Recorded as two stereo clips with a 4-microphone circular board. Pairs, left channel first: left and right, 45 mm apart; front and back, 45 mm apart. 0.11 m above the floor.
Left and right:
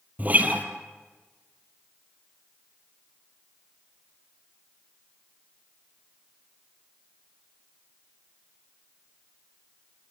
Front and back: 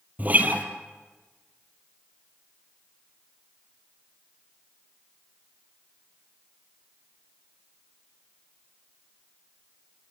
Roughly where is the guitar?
Behind right.